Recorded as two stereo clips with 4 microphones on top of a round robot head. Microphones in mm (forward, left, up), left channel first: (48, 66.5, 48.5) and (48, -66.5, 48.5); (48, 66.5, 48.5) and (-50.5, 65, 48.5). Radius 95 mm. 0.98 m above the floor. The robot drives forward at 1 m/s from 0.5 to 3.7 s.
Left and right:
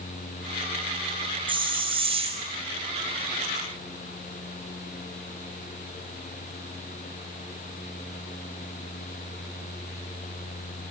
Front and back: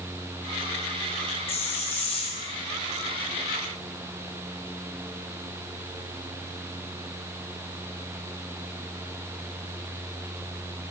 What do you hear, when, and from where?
1.5 s a hiss: 35° right, 6 m; by 2.5 s 45° right, 5 m